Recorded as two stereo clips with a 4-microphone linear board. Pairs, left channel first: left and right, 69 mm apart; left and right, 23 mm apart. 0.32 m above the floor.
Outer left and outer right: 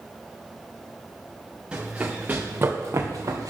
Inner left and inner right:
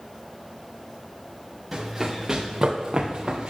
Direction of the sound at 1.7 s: 15° right (ahead or behind).